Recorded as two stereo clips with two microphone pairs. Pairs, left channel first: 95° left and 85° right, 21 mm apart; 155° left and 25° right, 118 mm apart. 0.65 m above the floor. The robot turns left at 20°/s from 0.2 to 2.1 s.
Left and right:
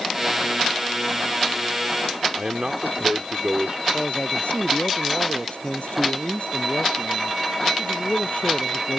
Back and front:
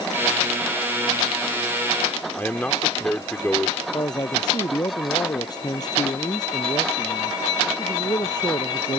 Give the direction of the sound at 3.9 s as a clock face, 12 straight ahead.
9 o'clock.